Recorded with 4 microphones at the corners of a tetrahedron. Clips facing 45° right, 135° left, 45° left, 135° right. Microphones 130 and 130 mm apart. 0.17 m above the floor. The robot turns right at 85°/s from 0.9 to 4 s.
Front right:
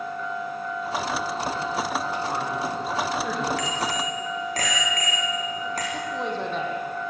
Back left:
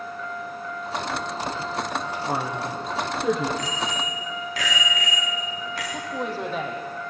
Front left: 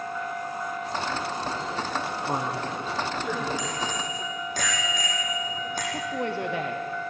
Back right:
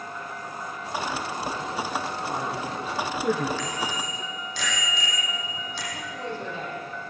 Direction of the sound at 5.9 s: 50° left.